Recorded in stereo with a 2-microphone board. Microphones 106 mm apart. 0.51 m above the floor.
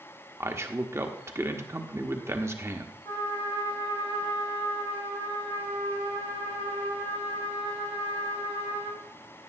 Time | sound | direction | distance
0.4 | a man speaking | 25° right (ahead or behind) | 0.9 m
3.0 | a trumpet | 50° left (ahead or behind) | 4.5 m